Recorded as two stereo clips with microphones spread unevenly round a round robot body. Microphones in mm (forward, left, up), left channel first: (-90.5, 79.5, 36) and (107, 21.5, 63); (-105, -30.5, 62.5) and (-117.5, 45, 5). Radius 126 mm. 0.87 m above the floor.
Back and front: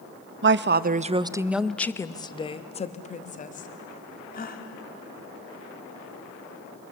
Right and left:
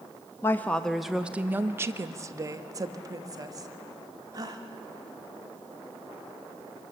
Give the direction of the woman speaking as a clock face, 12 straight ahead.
12 o'clock.